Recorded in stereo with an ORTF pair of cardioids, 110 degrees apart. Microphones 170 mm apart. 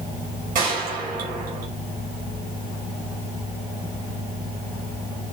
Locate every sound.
0.6 s a gunshot: 60° right, 6 m